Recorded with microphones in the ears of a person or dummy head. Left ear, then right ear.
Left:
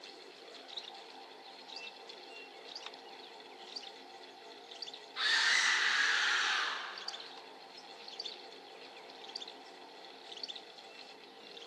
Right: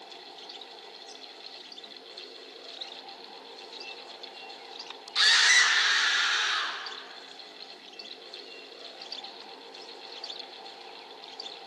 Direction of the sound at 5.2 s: 75° right (ahead or behind).